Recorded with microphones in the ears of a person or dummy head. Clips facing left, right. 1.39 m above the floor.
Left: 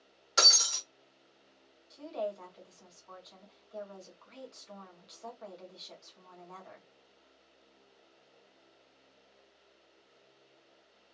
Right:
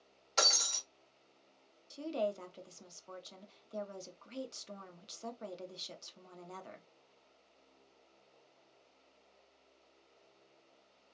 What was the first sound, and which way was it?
Breaking glass, 10° left (ahead or behind).